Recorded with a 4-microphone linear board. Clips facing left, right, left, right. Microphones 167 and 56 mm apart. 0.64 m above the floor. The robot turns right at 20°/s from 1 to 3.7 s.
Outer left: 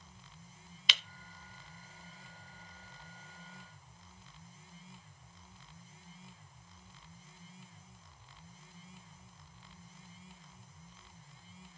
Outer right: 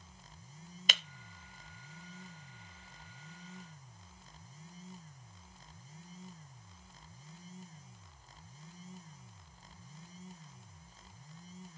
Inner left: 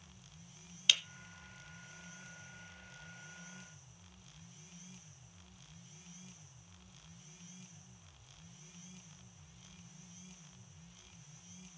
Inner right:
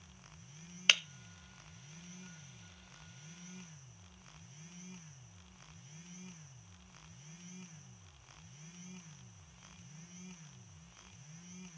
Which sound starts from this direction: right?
Breaking glass, at 0.9 s.